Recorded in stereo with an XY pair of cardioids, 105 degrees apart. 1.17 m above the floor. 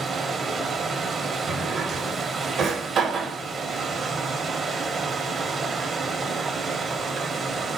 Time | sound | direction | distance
0.0 | running water | 45° right | 0.9 m
1.5 | a drawer | 55° right | 1.0 m